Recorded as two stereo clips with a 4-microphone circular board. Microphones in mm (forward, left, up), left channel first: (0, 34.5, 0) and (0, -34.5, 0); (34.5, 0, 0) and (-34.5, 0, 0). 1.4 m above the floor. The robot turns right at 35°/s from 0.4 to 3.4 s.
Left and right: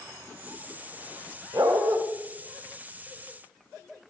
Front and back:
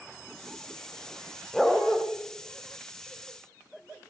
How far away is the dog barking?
About 1.8 m.